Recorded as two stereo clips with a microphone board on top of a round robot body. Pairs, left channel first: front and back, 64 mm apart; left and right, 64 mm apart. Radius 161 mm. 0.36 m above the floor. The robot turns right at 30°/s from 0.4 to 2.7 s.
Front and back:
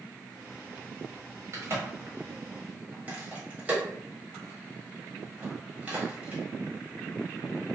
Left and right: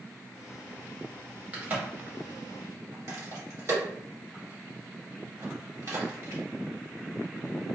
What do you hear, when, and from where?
1.5 s a crack: 155° right, 1.5 m; by 6.4 s 120° right, 1.5 m